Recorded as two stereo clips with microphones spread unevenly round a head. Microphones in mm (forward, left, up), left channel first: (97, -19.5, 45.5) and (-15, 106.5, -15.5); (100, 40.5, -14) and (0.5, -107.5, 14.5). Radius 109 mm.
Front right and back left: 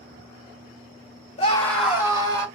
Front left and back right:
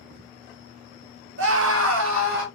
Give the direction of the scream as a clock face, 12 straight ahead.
4 o'clock.